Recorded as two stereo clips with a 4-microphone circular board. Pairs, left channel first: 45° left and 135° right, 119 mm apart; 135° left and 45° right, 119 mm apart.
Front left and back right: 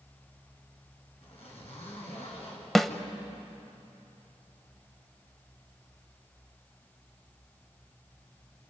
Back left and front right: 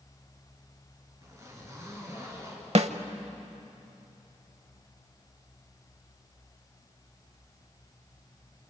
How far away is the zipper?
About 5.5 m.